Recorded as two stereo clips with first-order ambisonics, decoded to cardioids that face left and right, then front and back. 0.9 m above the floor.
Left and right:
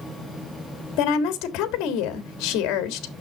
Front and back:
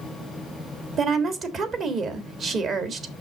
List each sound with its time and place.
1.0 s a woman speaking: 120° left, 1.4 m